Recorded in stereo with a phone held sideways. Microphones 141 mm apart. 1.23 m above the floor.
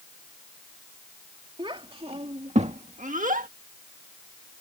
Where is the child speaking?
40° right (ahead or behind); by 3.5 s 80° right.